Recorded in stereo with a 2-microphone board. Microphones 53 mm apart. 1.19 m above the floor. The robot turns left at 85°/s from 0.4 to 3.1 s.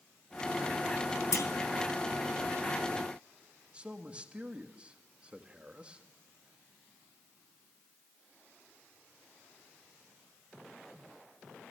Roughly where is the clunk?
Left.